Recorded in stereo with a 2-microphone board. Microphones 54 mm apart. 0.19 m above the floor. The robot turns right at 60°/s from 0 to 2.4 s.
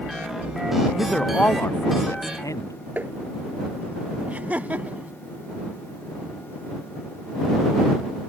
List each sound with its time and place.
1.0 s a man speaking: straight ahead; by 2.8 s 85° left
3.0 s tapping: 35° right (ahead or behind)
4.3 s laughter: 30° right (ahead or behind)